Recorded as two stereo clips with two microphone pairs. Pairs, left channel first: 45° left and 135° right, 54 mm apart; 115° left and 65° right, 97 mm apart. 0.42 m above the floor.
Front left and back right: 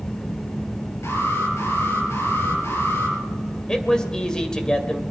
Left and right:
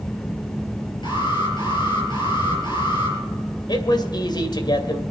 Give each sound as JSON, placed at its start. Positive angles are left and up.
{"t": 1.0, "sound": "an alarm", "azimuth_deg": 80, "distance_m": 6.0}
{"t": 3.7, "sound": "a man speaking", "azimuth_deg": 120, "distance_m": 2.0}